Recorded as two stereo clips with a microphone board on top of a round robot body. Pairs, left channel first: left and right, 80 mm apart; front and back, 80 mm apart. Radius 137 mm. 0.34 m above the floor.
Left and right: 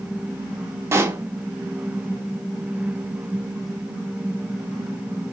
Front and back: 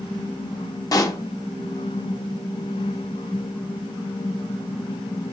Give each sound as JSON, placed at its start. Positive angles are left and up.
{"t": 0.9, "sound": "a pop", "azimuth_deg": -35, "distance_m": 0.6}